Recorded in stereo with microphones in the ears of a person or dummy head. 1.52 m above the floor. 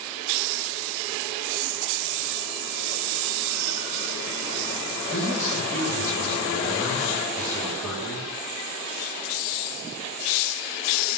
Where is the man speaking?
10° left (ahead or behind), 3 m.